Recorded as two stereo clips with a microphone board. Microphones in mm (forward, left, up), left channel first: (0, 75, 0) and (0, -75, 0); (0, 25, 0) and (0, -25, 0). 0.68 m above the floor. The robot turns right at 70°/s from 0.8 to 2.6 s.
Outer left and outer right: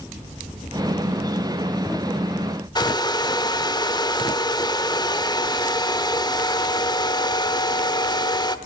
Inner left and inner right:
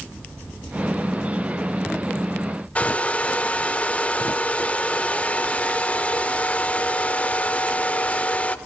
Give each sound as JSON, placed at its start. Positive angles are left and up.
{"t": 2.8, "sound": "a hair dryer", "side_deg": 30, "distance_m": 1.0}